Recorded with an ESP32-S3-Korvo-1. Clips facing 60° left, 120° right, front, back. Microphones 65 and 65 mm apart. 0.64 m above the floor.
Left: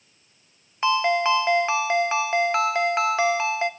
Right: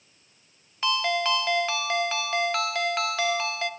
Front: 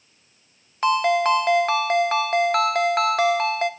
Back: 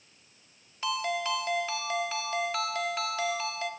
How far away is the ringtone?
About 0.8 m.